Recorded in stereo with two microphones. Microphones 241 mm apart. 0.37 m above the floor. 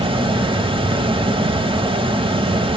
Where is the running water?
20° right (ahead or behind), 0.8 m.